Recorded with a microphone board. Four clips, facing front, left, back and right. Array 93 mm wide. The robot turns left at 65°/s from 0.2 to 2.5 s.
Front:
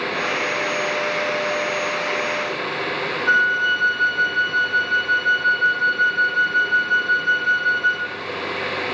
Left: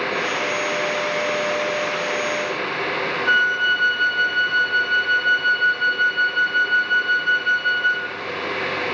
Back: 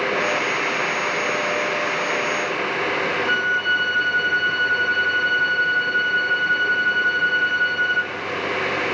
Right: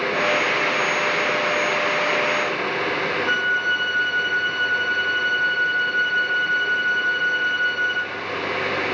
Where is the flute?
120° left, 1.3 m.